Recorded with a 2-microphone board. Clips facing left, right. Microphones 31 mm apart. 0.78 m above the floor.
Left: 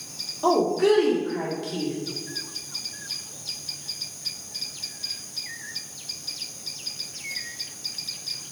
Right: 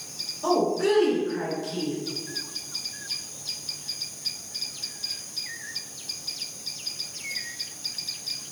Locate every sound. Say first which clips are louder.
0.4 s a woman speaking: left 3 dB; 40° left (ahead or behind), 1.5 m